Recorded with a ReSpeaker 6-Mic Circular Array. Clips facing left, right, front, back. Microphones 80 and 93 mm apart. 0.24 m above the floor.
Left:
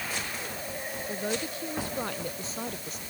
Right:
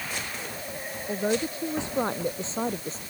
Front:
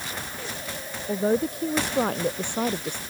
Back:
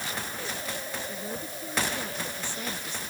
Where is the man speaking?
25° right; by 3.0 s 35° right.